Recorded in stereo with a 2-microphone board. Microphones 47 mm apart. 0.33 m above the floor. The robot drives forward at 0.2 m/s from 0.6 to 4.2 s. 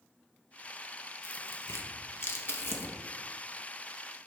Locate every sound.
1.2 s tearing paper: 85° left, 0.6 m; by 3.0 s 55° left (ahead or behind), 0.7 m